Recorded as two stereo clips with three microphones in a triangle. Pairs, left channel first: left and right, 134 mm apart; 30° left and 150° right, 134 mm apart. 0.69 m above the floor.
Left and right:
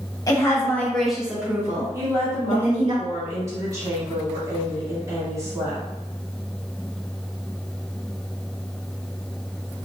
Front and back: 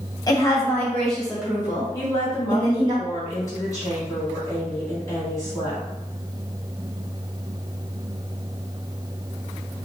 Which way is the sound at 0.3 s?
55° left.